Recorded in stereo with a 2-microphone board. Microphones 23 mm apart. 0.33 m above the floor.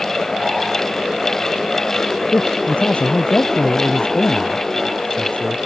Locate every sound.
2.3 s a man speaking: 65° left (ahead or behind)